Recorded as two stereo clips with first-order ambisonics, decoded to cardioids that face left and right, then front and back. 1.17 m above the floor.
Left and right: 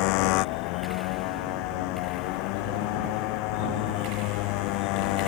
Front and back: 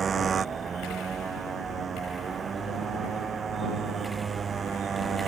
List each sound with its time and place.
0.0 s a motorcycle: 110° left